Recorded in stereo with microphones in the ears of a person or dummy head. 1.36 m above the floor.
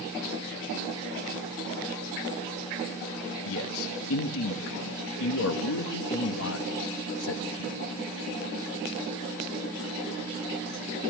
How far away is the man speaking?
About 1.5 m.